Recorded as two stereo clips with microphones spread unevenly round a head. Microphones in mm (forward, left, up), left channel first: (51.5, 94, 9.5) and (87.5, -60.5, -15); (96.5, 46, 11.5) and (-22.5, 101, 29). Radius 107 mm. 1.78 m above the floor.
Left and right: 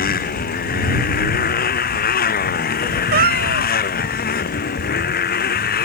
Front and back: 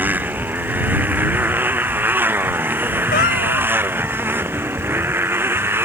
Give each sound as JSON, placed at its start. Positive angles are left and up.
{"t": 0.0, "sound": "a motorcycle", "azimuth_deg": 80}
{"t": 3.1, "sound": "a cat meowing", "azimuth_deg": -60}